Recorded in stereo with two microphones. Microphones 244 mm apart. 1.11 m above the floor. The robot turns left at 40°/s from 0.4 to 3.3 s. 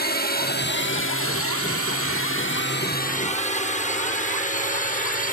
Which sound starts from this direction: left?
A drone, at 0.0 s.